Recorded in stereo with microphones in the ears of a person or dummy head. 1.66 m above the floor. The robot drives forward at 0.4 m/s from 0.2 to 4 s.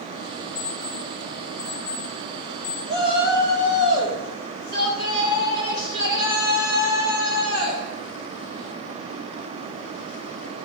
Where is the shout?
55° left (ahead or behind), 3.5 m; by 7.8 s 50° left (ahead or behind), 4 m.